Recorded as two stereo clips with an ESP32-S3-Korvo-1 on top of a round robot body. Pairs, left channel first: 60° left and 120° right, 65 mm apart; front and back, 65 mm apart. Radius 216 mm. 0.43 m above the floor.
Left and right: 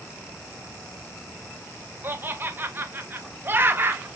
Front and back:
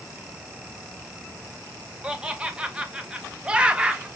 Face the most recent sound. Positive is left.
turn(degrees=-120)